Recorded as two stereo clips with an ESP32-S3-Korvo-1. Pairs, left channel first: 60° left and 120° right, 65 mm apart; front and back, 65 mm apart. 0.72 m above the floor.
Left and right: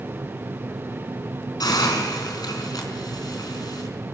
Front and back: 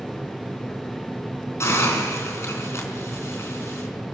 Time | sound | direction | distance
1.6 | a hiss | 45° left | 4.5 m